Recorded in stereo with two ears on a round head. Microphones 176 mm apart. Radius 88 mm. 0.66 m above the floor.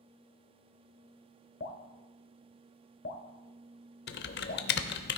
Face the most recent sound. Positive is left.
turn(degrees=60)  # may be behind; listen again after turning